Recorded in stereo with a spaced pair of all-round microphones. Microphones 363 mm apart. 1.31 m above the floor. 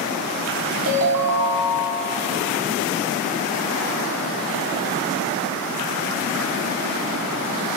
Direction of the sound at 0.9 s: 65° right (ahead or behind).